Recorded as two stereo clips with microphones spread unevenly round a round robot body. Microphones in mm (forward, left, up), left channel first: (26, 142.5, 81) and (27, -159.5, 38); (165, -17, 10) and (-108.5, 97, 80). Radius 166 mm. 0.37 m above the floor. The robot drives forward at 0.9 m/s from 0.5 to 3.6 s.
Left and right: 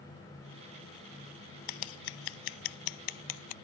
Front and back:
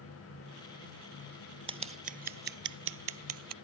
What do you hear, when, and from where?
1.7 s scissors: 85° left; by 3.5 s 125° left